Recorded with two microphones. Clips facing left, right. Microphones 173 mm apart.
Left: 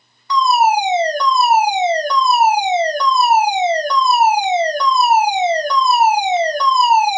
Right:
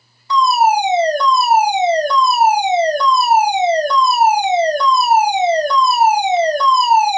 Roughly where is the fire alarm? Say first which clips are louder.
Right 1 dB; right.